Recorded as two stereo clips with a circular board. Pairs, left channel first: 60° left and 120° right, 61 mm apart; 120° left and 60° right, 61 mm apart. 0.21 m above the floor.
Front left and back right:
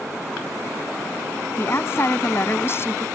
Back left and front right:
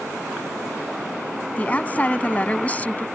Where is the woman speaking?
70° left.